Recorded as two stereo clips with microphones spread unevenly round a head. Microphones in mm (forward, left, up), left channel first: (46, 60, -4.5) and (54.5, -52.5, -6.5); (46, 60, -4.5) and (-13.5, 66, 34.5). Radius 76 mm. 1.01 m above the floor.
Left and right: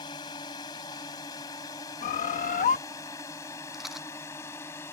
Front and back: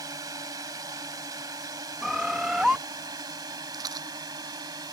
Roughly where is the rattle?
Behind.